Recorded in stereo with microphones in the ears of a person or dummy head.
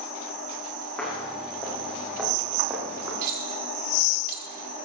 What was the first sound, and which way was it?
Footsteps, 5° left (ahead or behind).